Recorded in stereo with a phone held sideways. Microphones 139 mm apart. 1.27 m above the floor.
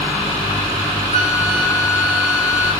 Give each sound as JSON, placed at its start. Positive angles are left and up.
{"t": 1.1, "sound": "a flute", "side_deg": 60, "distance_m": 3.0}